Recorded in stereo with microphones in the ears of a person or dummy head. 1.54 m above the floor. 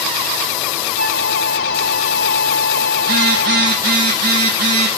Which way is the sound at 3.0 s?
55° right (ahead or behind).